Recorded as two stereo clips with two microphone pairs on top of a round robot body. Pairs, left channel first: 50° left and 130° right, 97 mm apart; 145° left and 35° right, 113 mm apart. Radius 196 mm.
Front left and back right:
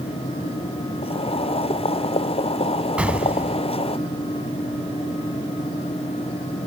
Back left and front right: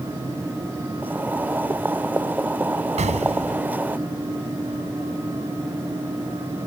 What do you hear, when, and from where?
1.0 s boiling: 40° left
3.0 s an explosion: 55° right